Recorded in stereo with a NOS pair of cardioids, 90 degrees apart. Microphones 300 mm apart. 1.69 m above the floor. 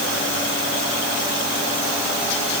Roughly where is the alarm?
No alarm in this recording.